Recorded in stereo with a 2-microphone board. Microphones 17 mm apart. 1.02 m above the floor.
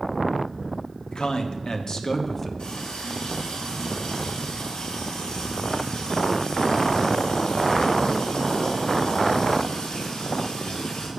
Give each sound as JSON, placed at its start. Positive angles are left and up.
{"t": 1.1, "sound": "a man speaking", "side_deg": 65, "distance_m": 1.8}
{"t": 2.6, "sound": "a running tap", "side_deg": 85, "distance_m": 5.5}